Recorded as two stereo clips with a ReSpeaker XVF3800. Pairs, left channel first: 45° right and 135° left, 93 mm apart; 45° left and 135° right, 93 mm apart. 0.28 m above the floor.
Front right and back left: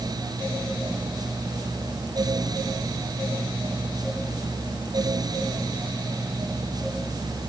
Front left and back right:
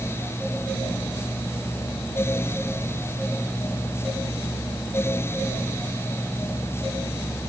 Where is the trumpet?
No trumpet in this recording.